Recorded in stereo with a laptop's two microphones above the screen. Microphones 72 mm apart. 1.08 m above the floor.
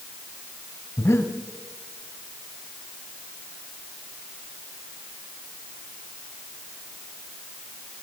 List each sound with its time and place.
1.0 s breathing: 40° left (ahead or behind), 1.5 m